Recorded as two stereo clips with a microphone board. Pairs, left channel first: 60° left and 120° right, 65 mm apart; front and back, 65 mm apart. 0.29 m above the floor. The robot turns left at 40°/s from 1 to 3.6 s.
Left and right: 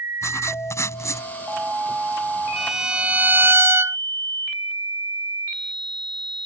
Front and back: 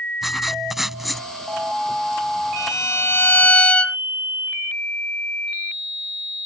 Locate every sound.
0.2 s writing: 95° left; by 1.3 s 80° left
2.6 s a violin: 30° right; by 4.0 s 70° right